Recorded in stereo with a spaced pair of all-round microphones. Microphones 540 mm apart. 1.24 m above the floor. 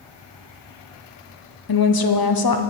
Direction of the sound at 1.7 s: 45° left (ahead or behind).